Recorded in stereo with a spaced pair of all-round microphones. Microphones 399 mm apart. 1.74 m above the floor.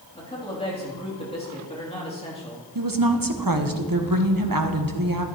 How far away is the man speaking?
About 3.5 m.